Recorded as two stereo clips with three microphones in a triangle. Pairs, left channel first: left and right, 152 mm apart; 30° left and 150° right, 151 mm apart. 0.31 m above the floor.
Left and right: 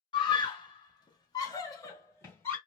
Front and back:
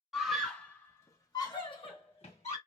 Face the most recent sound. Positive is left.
turn(degrees=20)